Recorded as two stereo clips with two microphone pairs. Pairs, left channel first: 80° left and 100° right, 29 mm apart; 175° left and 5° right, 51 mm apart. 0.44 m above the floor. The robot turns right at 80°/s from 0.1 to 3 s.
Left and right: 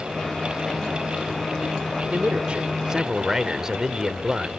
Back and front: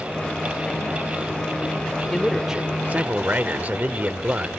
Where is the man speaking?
105° right; by 4.5 s 35° right.